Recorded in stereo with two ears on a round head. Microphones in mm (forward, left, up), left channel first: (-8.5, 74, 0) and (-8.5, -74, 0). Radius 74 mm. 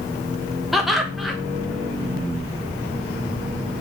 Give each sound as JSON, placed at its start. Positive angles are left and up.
{"t": 0.7, "sound": "laughter", "side_deg": 0, "distance_m": 0.6}